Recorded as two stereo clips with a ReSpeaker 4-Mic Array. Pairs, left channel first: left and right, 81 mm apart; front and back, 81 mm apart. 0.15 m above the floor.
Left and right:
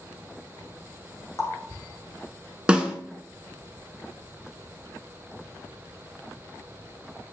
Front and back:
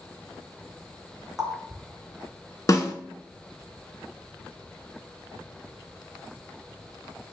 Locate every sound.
1.4 s a running tap: 100° left, 1.0 m
2.7 s a snare drum: 20° right, 0.7 m